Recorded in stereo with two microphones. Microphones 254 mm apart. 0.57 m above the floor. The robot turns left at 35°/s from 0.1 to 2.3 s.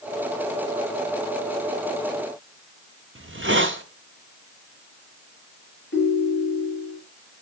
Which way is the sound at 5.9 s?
50° left (ahead or behind).